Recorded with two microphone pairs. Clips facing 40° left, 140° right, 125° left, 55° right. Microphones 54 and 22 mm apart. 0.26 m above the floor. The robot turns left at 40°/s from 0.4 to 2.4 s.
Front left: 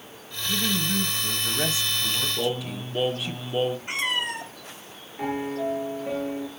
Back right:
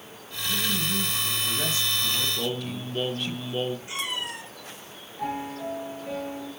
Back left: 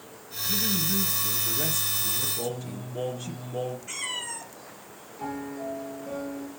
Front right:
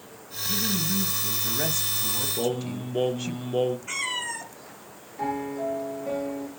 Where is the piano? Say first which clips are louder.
Front left 4 dB, front right 5 dB; 20° right, 6 m.